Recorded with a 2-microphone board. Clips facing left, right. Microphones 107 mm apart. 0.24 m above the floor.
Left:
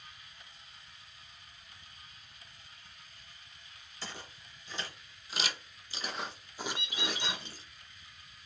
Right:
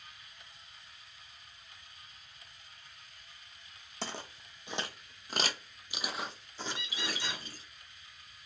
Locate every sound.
4.0 s footsteps: 80° right, 1.0 m; by 7.6 s 30° left (ahead or behind), 1.1 m
6.7 s a bird: 60° left (ahead or behind), 1.2 m